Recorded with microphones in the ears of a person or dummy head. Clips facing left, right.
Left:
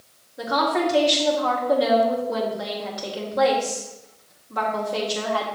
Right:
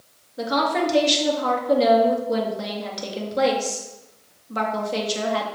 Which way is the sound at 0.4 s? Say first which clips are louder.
Even; 45° right (ahead or behind).